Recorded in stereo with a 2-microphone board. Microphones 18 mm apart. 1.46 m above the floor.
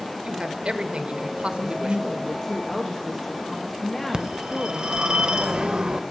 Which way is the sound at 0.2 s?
55° right (ahead or behind).